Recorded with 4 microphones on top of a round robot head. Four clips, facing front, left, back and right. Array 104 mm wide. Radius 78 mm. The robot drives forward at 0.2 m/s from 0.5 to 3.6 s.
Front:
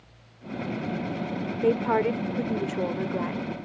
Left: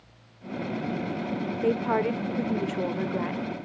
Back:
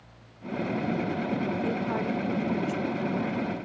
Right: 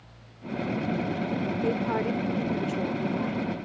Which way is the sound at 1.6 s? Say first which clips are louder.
Left 5 dB, front 6 dB; 35° left.